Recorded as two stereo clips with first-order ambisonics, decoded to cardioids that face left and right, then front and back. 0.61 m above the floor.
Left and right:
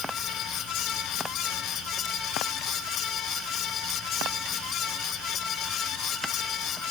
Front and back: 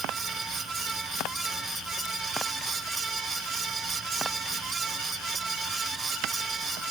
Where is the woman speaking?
No woman speaking in this recording.